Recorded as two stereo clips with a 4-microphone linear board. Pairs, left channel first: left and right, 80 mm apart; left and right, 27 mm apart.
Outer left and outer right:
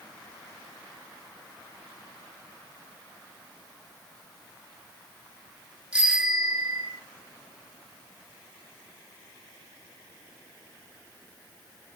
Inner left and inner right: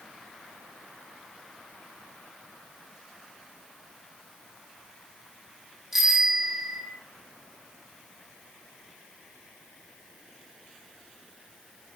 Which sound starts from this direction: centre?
A bicycle bell, at 5.9 s.